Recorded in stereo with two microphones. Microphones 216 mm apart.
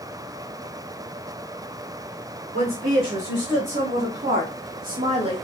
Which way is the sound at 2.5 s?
60° right (ahead or behind).